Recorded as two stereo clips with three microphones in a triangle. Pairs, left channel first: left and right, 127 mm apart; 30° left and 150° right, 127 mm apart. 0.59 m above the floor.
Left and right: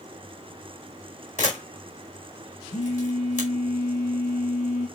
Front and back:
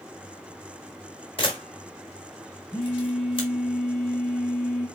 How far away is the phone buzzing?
About 2.5 m.